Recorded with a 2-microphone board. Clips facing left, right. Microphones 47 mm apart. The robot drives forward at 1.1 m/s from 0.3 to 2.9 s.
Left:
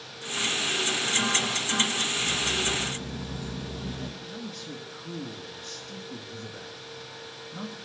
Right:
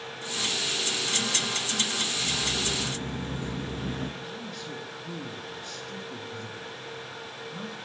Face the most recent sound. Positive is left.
turn(degrees=0)  # may be behind; listen again after turning